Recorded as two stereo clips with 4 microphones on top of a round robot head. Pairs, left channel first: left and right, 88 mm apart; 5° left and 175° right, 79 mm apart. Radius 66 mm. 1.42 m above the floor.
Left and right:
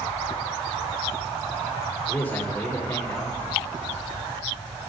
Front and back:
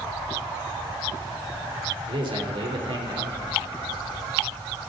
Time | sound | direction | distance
2.1 | a man speaking | 165° left | 3.5 m